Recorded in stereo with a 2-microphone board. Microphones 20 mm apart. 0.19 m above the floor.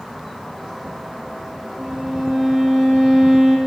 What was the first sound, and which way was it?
A violin, 45° right (ahead or behind).